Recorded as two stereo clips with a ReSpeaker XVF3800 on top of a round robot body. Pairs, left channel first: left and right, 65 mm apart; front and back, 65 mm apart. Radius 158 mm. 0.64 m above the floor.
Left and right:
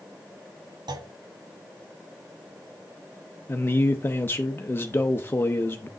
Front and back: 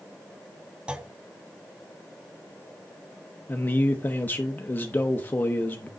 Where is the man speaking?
45° left, 0.9 m.